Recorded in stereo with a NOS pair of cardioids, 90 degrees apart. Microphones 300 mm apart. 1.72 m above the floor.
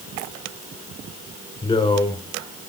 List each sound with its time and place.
1.6 s a man speaking: 15° left, 6 m